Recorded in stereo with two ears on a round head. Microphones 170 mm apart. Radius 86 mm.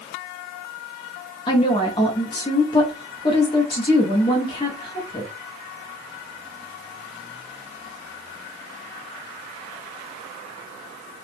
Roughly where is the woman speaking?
Left.